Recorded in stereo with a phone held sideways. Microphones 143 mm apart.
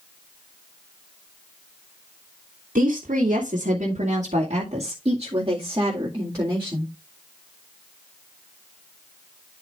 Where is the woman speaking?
70° right (ahead or behind), 1.9 m; by 6.9 s 15° right (ahead or behind), 2.5 m.